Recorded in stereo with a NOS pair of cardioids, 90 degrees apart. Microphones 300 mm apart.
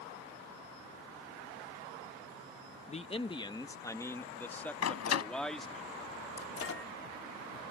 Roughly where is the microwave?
Ahead left.